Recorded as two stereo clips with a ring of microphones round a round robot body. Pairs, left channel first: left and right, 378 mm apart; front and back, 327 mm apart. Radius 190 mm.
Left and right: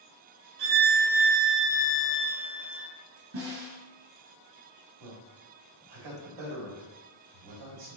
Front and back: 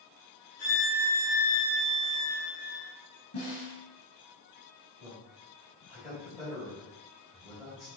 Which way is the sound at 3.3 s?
45° right.